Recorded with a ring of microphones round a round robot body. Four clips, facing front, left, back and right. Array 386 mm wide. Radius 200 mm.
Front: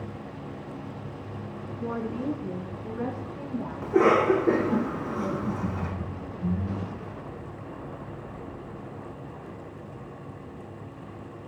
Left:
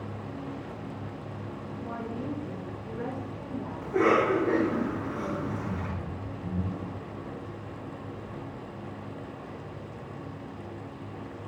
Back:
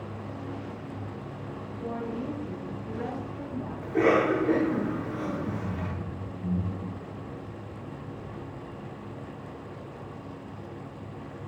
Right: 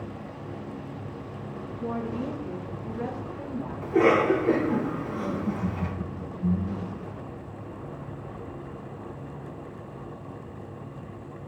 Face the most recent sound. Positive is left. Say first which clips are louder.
# right 3 dB, front 2 dB
turn(degrees=-50)